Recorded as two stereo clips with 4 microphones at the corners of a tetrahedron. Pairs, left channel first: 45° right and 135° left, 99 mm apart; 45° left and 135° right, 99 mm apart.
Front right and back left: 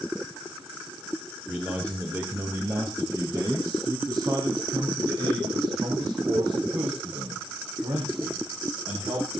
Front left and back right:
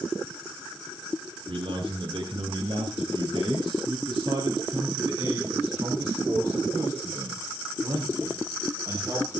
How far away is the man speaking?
About 2.5 m.